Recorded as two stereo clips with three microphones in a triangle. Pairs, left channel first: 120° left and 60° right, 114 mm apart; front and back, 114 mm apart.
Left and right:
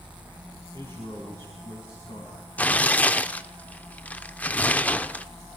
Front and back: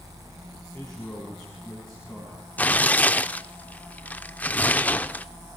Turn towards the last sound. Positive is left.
turn(degrees=60)